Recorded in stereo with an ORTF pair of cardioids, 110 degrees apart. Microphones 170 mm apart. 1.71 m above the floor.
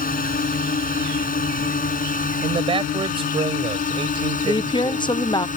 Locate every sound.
0.0 s a drone: 55° left; by 5.6 s 50° left
2.4 s a man speaking: 30° right
4.4 s a woman speaking: 25° left